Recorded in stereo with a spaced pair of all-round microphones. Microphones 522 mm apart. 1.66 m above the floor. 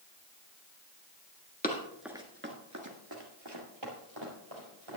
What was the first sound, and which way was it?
Running footsteps, 15° left (ahead or behind).